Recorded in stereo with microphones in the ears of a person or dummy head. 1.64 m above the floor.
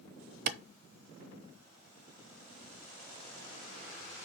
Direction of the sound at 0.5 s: 55° right (ahead or behind).